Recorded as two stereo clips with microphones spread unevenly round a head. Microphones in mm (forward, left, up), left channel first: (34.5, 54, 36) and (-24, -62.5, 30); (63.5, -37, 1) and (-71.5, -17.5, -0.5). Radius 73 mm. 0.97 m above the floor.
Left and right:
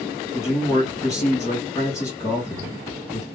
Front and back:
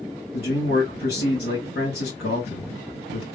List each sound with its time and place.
0.3 s a man speaking: 5° right, 2.5 m